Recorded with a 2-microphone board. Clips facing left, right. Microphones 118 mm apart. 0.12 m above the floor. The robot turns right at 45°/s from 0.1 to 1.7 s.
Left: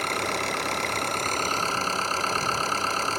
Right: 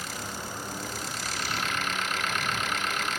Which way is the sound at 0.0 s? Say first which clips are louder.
Left 9 dB; 70° left.